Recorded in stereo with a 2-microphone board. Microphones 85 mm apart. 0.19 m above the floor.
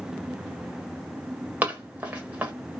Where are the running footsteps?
20° right (ahead or behind), 1.2 m.